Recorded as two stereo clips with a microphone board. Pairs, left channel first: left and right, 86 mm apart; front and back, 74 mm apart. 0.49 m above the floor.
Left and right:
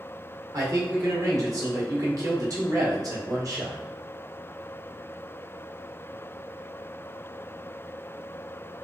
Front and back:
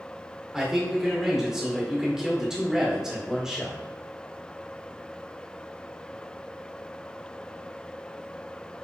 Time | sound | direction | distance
0.5 | a man speaking | 100° right | 1.1 m